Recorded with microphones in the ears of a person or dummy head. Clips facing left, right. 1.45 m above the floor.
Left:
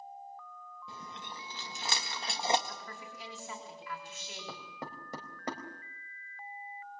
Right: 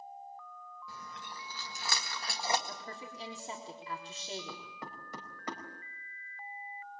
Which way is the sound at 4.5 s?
35° left (ahead or behind).